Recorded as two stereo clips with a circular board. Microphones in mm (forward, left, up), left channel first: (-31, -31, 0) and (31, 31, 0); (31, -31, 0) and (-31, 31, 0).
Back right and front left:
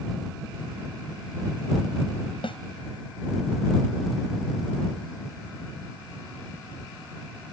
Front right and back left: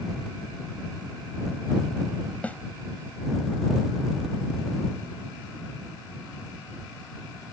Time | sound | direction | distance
2.4 | a snare drum | 120° right | ?